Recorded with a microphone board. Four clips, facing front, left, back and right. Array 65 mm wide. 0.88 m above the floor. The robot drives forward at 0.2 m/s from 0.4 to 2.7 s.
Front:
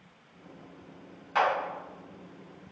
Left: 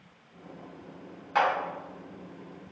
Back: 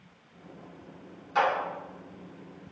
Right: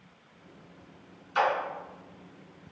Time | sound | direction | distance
1.4 | a clap | 75° left | 1.9 m